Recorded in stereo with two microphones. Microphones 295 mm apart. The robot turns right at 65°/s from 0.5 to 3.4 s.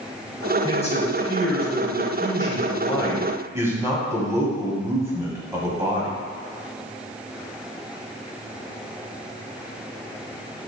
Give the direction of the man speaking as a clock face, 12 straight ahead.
12 o'clock.